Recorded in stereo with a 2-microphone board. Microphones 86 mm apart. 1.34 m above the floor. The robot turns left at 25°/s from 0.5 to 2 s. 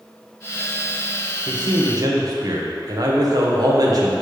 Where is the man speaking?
60° right (ahead or behind), 1.1 m; by 4.1 s 50° right (ahead or behind), 1.1 m.